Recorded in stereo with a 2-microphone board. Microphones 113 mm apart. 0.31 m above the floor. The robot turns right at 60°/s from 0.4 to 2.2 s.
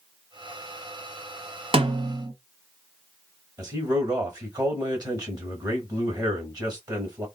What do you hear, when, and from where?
1.7 s a snare drum: 55° right (ahead or behind), 0.8 m; by 2.3 s 35° right (ahead or behind), 0.8 m
3.6 s a man speaking: 35° right (ahead or behind), 1.2 m